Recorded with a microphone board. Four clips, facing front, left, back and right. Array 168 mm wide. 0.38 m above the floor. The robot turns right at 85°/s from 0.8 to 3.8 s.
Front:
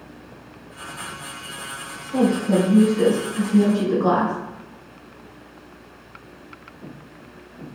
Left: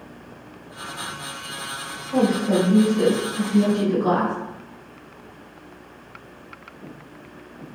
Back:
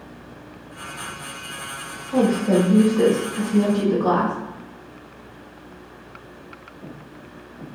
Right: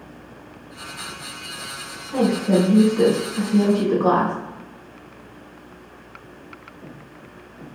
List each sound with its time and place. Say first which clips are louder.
2.1 s a woman speaking: right 1 dB, back 1 dB; 150° left, 1.6 m; by 4.3 s 70° right, 1.6 m